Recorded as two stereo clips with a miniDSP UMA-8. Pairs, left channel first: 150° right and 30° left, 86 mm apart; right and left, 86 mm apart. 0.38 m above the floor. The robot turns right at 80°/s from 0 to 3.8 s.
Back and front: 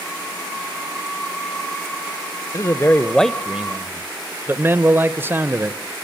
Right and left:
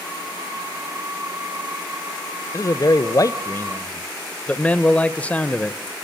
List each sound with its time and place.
2.5 s a man speaking: 125° right, 1.1 m; by 5.8 s 20° right, 1.1 m